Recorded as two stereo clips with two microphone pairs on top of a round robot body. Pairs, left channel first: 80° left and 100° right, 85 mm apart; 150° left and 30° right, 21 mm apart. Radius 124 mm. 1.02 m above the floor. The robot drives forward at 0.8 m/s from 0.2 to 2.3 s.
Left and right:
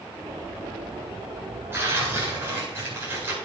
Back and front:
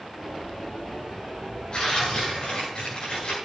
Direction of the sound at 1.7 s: 160° right.